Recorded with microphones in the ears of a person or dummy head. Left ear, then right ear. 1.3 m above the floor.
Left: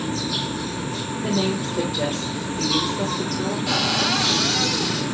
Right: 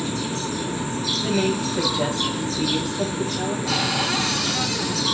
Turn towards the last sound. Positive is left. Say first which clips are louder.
# left 2 dB
turn(degrees=50)  # may be behind; listen again after turning